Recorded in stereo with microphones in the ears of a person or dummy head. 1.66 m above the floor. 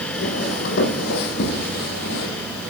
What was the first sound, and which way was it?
Footsteps, 55° left (ahead or behind).